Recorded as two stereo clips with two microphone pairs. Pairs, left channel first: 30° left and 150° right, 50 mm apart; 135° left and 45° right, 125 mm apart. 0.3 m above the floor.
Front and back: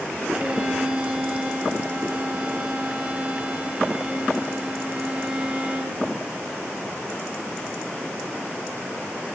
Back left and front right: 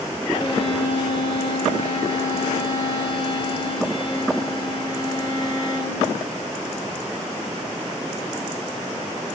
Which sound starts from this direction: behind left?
A violin, at 0.3 s.